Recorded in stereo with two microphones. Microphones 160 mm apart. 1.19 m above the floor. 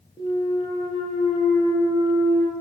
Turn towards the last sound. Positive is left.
turn(degrees=30)  # may be behind; listen again after turning